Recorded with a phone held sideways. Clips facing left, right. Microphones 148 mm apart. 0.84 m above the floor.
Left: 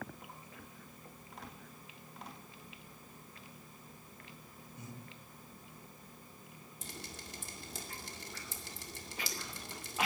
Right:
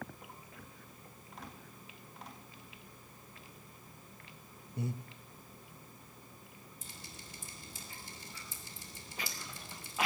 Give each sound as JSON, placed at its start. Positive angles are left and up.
{"t": 4.8, "sound": "breathing", "side_deg": -70, "distance_m": 1.0}
{"t": 6.8, "sound": "dripping", "side_deg": 75, "distance_m": 2.0}